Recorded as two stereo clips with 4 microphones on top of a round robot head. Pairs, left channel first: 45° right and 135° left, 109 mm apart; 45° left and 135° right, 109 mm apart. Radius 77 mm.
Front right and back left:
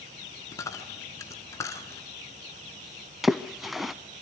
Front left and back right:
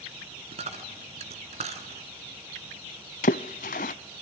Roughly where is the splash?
Ahead left.